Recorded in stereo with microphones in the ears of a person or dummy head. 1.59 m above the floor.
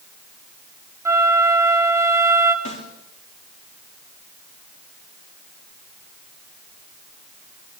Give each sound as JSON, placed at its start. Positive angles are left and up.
{"t": 1.1, "sound": "a flute", "side_deg": -15, "distance_m": 2.5}
{"t": 2.6, "sound": "a snare drum", "side_deg": 40, "distance_m": 4.5}